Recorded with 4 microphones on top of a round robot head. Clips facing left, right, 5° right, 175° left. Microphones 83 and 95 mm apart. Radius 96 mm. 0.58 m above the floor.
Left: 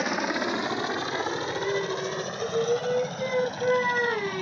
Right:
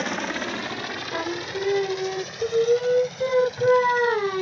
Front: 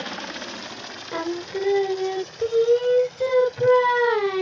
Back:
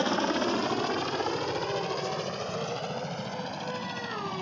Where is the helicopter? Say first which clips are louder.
Left 1 dB, back 7 dB; 170° left; by 4.4 s 135° left.